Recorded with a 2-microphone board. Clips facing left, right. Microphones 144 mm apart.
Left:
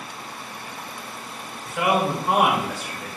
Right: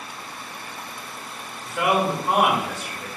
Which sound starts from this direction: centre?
A man speaking, at 1.6 s.